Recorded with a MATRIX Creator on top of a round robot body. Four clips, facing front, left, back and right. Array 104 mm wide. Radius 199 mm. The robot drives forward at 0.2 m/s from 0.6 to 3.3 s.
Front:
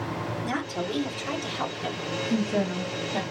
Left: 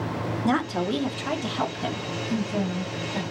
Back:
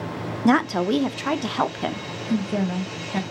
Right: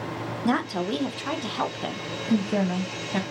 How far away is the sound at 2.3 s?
About 1.3 m.